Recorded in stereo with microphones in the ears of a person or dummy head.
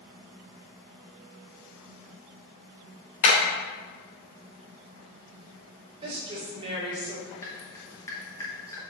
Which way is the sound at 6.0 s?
30° right (ahead or behind).